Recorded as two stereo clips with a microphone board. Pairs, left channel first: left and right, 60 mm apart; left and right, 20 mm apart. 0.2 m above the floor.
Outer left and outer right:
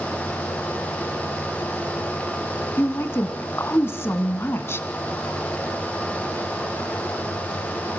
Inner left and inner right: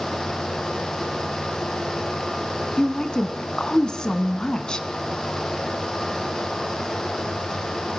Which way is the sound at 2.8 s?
40° left (ahead or behind).